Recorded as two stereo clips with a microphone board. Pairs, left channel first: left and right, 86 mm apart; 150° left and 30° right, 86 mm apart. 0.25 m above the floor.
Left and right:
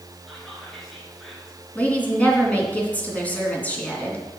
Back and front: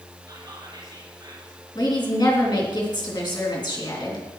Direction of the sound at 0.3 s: Straight ahead.